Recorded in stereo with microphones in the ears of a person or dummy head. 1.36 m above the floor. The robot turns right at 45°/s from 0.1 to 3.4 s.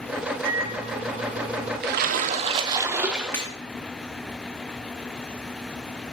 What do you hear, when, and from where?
0.4 s a microwave: 120° right, 2.5 m; by 1.7 s 65° right, 2.5 m
1.8 s a splash: 65° right, 0.6 m; by 3.5 s 5° left, 0.6 m
3.3 s breaking glass: 10° left (ahead or behind), 1.4 m; by 3.5 s 5° left (ahead or behind), 1.4 m